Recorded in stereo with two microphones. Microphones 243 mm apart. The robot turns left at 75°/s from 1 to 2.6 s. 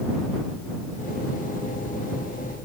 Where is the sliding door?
I don't hear a sliding door.